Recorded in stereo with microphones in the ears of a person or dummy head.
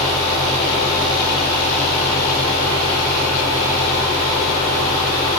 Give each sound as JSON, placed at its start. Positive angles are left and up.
{"t": 0.0, "sound": "a fan", "side_deg": -35, "distance_m": 4.0}